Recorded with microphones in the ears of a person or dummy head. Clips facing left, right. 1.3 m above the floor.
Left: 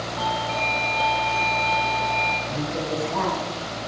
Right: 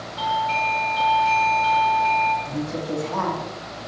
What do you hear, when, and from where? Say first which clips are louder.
0.2 s a doorbell: right 3 dB; 40° right (ahead or behind), 0.9 m
2.5 s a woman speaking: even; 80° right, 2 m